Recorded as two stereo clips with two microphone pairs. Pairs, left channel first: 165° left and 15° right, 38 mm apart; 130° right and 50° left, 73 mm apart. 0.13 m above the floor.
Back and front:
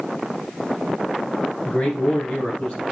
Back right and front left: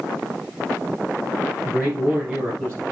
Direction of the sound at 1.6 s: 120° left.